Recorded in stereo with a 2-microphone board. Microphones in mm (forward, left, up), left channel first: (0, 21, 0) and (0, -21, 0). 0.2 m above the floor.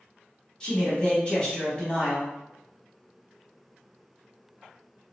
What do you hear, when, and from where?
0.6 s a man speaking: 20° left (ahead or behind), 1.0 m